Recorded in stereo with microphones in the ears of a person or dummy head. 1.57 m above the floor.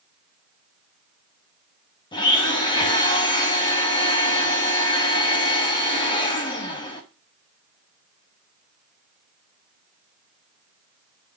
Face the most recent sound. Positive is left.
turn(degrees=20)  # may be behind; listen again after turning